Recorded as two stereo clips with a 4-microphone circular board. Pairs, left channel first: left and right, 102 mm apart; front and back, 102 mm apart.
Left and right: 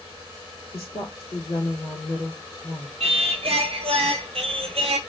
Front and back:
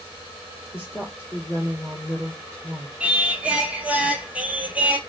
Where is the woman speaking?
55° left, 2.0 m.